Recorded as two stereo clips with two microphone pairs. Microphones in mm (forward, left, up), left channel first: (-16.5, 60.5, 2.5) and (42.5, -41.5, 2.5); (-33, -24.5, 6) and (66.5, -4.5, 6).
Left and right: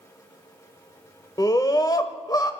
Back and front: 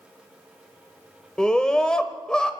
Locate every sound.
1.4 s a scream: 115° left, 1.2 m